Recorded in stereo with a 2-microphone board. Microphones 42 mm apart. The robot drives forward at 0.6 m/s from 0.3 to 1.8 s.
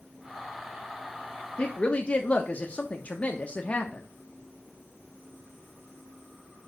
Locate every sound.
1.6 s a woman speaking: 30° left (ahead or behind), 1.4 m